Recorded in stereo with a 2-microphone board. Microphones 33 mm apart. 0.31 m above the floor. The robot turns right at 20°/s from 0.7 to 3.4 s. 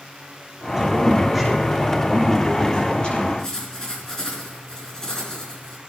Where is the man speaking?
15° right, 6.5 m; by 3.3 s 35° left, 6.5 m.